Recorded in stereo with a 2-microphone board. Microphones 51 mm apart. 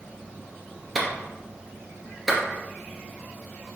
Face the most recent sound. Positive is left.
turn(degrees=0)  # may be behind; listen again after turning